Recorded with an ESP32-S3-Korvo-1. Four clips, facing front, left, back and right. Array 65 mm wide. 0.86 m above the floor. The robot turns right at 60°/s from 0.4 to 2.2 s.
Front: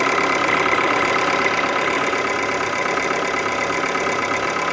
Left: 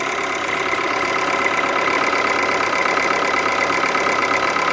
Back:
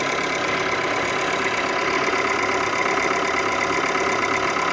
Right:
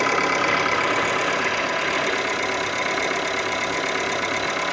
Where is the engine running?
20° right, 1.0 m; by 4.7 s 85° left, 1.0 m.